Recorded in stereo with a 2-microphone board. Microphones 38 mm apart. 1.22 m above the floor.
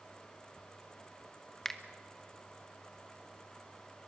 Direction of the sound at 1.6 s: 15° left (ahead or behind).